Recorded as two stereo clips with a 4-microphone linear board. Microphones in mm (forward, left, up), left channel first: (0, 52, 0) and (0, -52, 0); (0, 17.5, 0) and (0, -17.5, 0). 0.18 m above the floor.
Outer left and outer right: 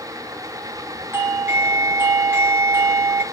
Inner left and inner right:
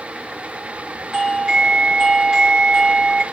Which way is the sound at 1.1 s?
20° right (ahead or behind).